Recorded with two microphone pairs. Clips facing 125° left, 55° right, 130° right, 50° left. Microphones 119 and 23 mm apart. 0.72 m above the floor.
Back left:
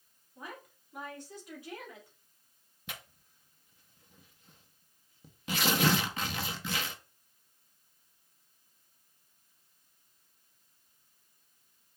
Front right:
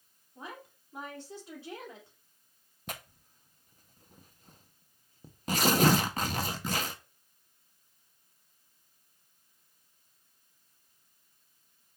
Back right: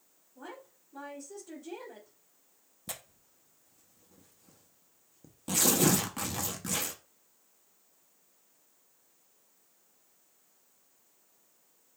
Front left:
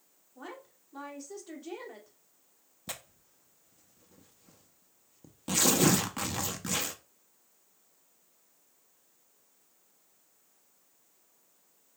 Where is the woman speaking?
5° left, 1.9 m.